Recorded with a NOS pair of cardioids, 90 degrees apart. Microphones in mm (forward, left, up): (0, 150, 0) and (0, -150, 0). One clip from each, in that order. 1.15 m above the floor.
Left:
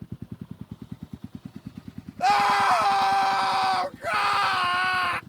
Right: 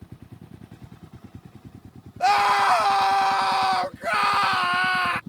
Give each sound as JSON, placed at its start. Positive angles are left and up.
{"t": 2.2, "sound": "a scream", "azimuth_deg": -10}